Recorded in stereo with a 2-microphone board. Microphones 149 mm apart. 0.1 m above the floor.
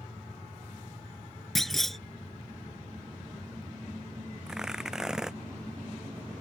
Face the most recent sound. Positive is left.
turn(degrees=-5)  # may be behind; listen again after turning